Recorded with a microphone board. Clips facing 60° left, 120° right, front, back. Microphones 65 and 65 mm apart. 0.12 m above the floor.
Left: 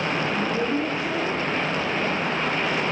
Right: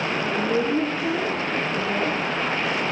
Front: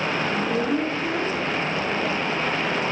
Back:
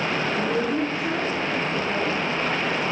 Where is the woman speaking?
75° right, 9 m; by 2.2 s 90° right, 9.5 m.